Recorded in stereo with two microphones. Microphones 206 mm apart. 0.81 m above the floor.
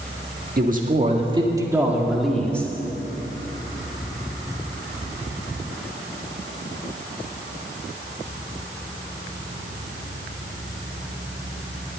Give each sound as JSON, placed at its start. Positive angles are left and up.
{"t": 0.6, "sound": "a man speaking", "side_deg": -45, "distance_m": 1.8}